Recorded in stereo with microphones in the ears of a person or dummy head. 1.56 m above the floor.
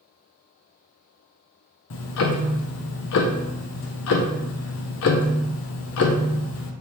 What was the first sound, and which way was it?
Ticking, 60° left (ahead or behind).